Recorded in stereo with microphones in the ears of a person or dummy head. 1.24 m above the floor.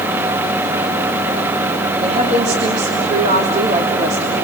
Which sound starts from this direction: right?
A woman speaking, at 2.0 s.